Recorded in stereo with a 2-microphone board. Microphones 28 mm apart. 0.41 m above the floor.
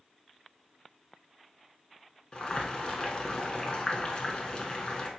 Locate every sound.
2.3 s boiling: 30° left (ahead or behind), 0.9 m